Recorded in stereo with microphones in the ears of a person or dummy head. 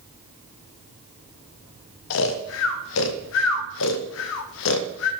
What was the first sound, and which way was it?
Snoring, 65° left (ahead or behind).